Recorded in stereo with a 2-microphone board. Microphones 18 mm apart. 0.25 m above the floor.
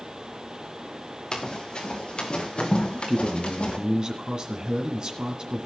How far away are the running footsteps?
About 3 m.